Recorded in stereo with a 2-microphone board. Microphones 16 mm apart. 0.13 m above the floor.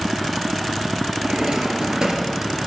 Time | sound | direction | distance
1.2 | a drawer | 55° right (ahead or behind) | 1.6 m